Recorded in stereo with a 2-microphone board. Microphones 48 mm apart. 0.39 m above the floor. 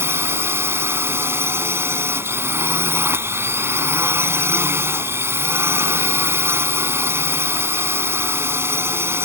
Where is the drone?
60° right (ahead or behind).